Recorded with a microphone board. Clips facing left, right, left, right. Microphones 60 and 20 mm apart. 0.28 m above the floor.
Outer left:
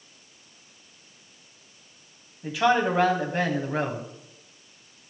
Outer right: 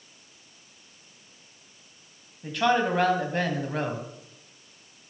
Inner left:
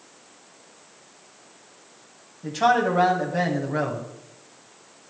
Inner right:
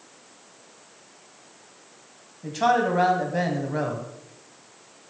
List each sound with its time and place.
2.4 s a man speaking: 5° left (ahead or behind), 2 m